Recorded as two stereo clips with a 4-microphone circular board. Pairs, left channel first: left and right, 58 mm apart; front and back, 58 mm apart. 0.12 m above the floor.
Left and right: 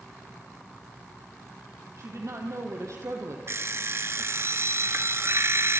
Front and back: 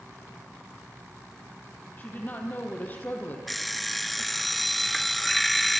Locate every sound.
2.0 s a woman speaking: 60° right, 5 m
3.5 s an alarm clock: 90° right, 0.8 m